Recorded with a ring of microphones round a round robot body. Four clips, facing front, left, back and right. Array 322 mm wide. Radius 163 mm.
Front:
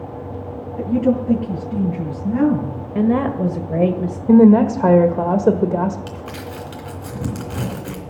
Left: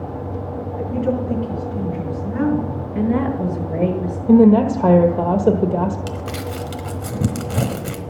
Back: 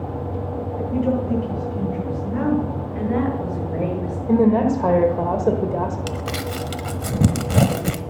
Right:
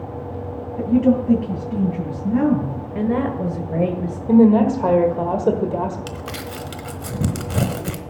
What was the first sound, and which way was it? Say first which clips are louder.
A woman speaking: right 6 dB, front 4 dB; 50° right.